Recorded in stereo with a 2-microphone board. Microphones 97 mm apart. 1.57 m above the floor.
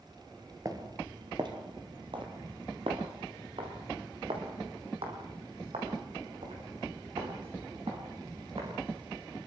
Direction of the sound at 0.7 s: 35° right (ahead or behind).